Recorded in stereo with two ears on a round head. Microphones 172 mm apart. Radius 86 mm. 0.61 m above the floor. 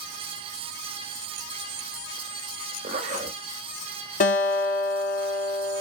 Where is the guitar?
45° left (ahead or behind), 1.6 m.